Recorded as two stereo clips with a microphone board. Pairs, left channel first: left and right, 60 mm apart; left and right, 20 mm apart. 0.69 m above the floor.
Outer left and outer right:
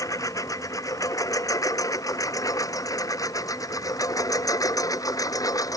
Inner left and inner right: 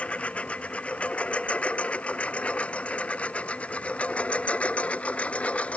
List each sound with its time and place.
0.0 s a lawn mower: 70° left (ahead or behind); by 5.8 s 80° left